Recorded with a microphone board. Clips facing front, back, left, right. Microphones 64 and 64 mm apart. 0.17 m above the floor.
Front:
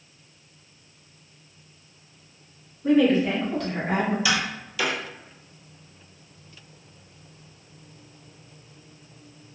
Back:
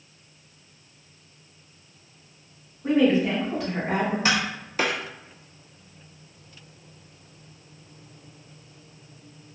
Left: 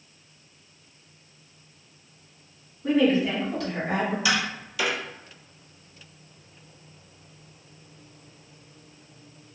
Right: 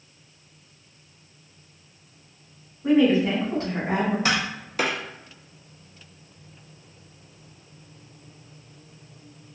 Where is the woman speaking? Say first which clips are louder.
Front 1 dB, right 3 dB; 140° right, 1.5 m; by 4.2 s 90° right, 1.7 m.